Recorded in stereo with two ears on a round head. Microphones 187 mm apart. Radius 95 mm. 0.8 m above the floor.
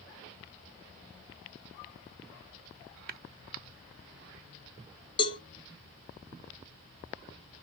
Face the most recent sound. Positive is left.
turn(degrees=25)  # may be behind; listen again after turning